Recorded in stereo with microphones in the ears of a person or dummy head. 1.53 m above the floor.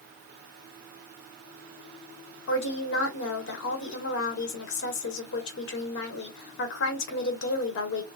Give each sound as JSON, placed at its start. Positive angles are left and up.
{"t": 2.5, "sound": "a woman speaking", "side_deg": 60, "distance_m": 1.7}